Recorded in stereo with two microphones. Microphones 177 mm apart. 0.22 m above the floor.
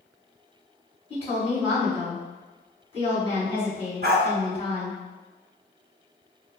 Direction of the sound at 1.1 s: 30° left (ahead or behind).